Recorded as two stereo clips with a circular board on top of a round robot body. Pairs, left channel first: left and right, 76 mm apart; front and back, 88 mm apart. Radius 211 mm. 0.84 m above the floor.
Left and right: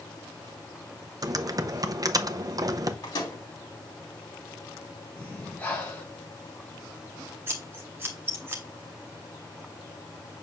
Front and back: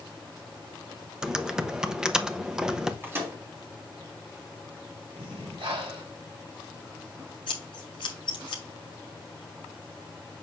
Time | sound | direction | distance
1.2 | typing on a keyboard | 100° right | 0.8 m
3.0 | a microwave | 115° left | 3 m
5.2 | breathing | 160° left | 1.9 m
7.5 | scissors | 30° right | 0.6 m